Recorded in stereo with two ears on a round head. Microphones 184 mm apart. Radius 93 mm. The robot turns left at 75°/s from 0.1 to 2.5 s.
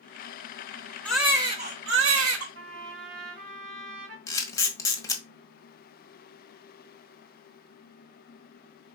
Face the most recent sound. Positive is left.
turn(degrees=15)  # may be behind; listen again after turning